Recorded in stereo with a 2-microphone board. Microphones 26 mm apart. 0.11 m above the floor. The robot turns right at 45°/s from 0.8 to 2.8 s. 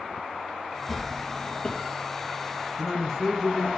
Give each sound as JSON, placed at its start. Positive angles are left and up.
{"t": 0.9, "sound": "a drawer", "azimuth_deg": -10, "distance_m": 1.8}
{"t": 2.8, "sound": "a man speaking", "side_deg": 5, "distance_m": 1.9}